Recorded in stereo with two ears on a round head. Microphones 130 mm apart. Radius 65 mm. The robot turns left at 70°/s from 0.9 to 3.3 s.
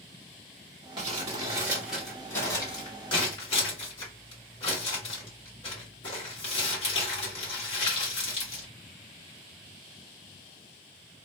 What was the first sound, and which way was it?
Crumpling, 35° right (ahead or behind).